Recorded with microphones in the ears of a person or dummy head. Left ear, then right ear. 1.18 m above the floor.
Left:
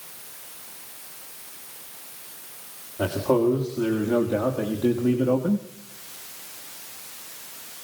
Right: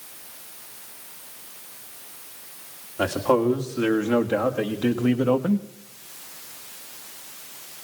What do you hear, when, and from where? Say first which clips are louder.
3.0 s a man speaking: right 1 dB; 60° right (ahead or behind), 2.5 m; by 5.7 s 70° right (ahead or behind), 1.0 m